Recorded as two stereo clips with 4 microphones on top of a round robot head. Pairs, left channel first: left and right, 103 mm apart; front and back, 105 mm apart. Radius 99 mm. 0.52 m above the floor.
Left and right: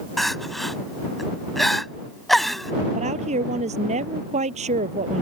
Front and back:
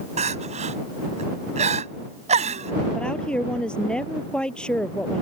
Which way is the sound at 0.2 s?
Straight behind.